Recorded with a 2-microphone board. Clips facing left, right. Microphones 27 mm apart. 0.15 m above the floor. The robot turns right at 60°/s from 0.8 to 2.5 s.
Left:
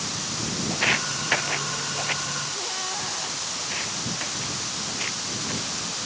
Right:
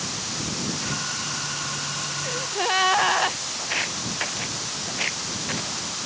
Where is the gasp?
60° right (ahead or behind); by 3.4 s 45° right (ahead or behind).